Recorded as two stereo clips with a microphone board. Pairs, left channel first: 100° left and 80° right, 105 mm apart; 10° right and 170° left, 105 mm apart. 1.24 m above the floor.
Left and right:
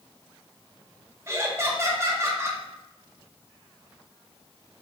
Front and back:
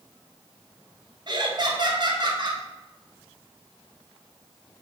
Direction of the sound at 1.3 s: 145° right.